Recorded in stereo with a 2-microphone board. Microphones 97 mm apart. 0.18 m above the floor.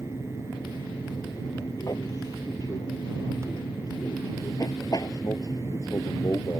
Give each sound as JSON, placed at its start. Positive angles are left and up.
{"t": 0.0, "sound": "an aircraft", "side_deg": 45}